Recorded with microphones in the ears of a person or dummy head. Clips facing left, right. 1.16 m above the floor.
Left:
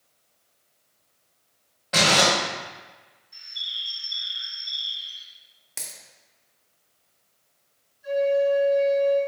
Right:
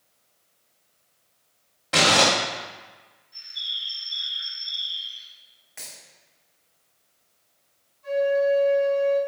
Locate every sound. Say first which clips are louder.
1.9 s crumpling: right 1 dB; 15° right (ahead or behind), 1.1 m
3.3 s a bird: even; 30° left (ahead or behind), 1.0 m
5.8 s a dropped coin: left 1 dB; 50° left (ahead or behind), 0.8 m
8.0 s a flute: even; 10° left (ahead or behind), 1.6 m